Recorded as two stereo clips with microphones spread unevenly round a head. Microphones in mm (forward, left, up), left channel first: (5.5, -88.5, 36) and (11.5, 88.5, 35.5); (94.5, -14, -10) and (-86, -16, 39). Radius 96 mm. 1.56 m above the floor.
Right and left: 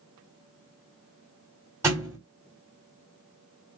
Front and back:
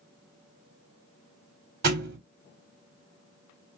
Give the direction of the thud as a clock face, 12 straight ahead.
6 o'clock.